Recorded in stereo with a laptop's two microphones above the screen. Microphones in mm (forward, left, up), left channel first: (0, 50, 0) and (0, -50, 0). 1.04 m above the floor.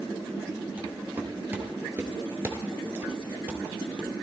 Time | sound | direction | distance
0.8 | footsteps | 15° right (ahead or behind) | 1.7 m